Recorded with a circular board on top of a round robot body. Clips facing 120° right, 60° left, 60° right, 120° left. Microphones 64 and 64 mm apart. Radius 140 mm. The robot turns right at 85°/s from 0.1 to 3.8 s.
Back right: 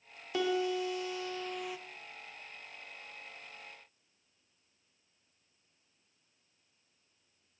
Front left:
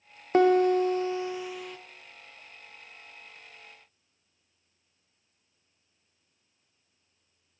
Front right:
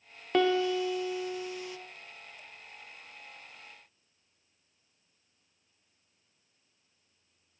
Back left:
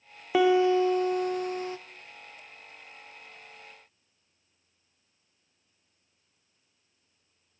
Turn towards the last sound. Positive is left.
turn(degrees=-25)